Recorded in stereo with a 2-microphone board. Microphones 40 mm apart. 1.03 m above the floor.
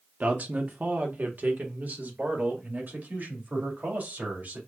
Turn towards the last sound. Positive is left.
turn(degrees=-45)  # may be behind; listen again after turning